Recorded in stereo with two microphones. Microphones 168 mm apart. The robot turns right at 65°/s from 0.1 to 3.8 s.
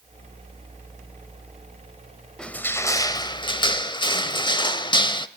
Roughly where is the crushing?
Centre.